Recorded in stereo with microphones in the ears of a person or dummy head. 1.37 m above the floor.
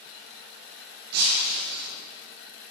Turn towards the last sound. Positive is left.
turn(degrees=-60)  # may be behind; listen again after turning